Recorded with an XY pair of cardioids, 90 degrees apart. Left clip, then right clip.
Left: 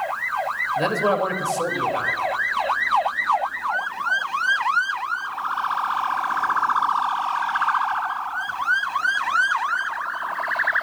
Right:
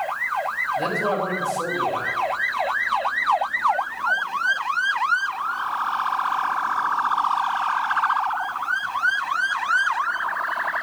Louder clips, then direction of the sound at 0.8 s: Left 2 dB; 45° left.